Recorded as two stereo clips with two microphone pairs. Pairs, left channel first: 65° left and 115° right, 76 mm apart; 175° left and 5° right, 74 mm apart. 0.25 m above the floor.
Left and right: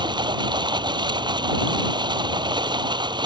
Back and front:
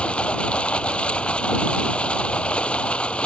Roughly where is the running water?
Right.